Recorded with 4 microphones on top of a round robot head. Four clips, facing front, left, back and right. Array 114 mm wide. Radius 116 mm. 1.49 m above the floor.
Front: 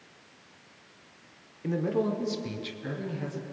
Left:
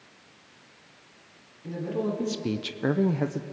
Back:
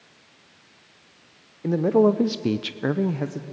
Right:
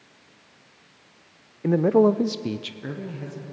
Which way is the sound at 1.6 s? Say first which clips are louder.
Right 12 dB, back 10 dB; 115° right.